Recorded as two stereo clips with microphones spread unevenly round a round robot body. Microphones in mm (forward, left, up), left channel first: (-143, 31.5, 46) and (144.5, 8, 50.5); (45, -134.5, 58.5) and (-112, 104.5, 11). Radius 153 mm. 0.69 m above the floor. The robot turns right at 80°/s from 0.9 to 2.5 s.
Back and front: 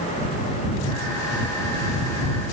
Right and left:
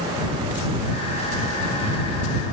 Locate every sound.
Only background noise.